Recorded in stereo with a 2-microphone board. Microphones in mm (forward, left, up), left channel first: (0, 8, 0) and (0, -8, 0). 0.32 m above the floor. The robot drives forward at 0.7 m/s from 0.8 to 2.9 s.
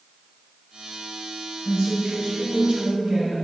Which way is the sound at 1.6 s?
50° right (ahead or behind).